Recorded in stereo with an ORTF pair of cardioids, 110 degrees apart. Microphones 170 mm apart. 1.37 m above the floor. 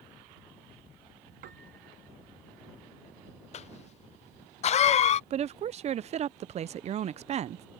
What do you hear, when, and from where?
1.4 s a piano: 65° right
3.5 s a cough: 40° left
5.3 s a woman speaking: 40° right